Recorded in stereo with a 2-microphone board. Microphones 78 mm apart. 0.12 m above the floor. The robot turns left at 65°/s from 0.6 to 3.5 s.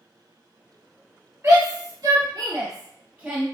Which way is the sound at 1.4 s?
30° right (ahead or behind).